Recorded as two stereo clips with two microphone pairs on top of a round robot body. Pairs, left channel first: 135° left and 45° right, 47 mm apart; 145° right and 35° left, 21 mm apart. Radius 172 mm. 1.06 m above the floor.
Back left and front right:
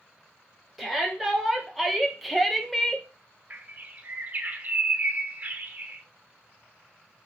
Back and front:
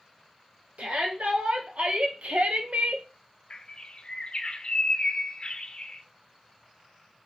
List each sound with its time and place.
0.8 s a shout: 40° left, 3.5 m; by 3.1 s 50° left, 0.9 m
3.5 s a bird: 95° right, 1.0 m